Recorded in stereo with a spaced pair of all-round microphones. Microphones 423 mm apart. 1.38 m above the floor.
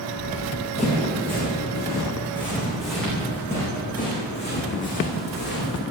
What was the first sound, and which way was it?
Running footsteps, 20° right (ahead or behind).